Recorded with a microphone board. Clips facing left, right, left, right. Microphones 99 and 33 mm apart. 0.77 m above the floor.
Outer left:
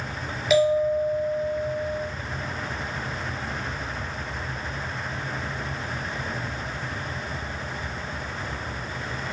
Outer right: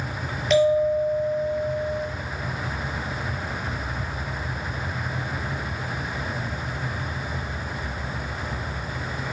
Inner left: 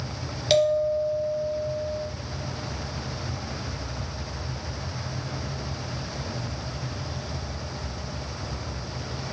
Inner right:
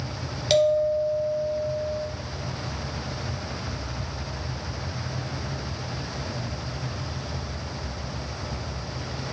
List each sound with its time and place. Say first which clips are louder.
0.5 s a bell: outer right 1 dB, inner right 1 dB; 5° left (ahead or behind), 0.5 m